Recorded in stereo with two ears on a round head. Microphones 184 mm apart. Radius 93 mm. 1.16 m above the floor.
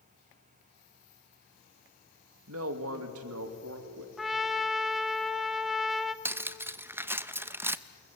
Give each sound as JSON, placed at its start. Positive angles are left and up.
{"t": 2.5, "sound": "a man speaking", "side_deg": -80, "distance_m": 1.6}
{"t": 4.2, "sound": "a trumpet", "side_deg": 0, "distance_m": 0.6}
{"t": 6.2, "sound": "cutlery clinking", "side_deg": -10, "distance_m": 0.5}